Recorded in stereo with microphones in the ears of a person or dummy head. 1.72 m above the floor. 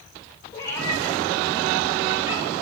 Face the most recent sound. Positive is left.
turn(degrees=-10)  # may be behind; listen again after turning